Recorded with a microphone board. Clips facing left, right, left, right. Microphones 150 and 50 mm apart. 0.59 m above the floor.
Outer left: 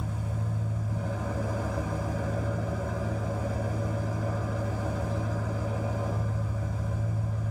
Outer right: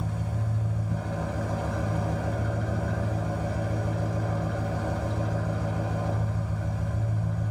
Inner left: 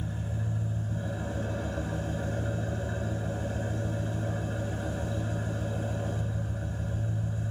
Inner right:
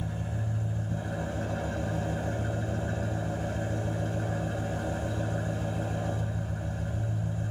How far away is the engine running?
About 2.5 m.